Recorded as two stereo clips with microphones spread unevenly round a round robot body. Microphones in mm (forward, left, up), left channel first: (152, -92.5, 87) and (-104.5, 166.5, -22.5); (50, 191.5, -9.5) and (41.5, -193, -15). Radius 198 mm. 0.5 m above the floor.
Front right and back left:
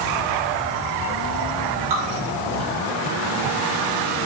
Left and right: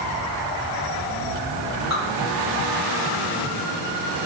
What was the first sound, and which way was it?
Dripping, 155° left.